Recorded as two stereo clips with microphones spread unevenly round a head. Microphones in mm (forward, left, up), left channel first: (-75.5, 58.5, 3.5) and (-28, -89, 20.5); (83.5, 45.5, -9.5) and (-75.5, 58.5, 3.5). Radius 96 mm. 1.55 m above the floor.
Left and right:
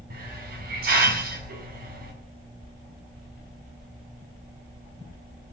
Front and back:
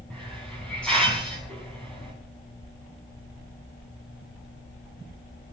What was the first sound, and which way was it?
A hiss, 90° right.